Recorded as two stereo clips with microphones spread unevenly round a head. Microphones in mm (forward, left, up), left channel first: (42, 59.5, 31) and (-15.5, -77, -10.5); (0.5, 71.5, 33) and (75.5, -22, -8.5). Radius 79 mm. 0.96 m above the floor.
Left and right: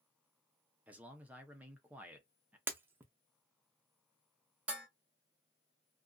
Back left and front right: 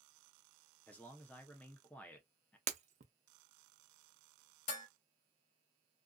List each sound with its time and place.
0.9 s a man speaking: 125° right, 0.7 m
2.7 s breaking glass: 25° right, 0.5 m
4.7 s dishes clattering: 165° left, 0.7 m